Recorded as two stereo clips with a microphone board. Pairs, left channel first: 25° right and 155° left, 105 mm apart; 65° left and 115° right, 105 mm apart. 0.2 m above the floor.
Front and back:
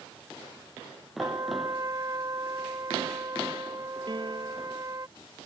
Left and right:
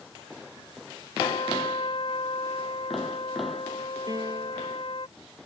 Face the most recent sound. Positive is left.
turn(degrees=-165)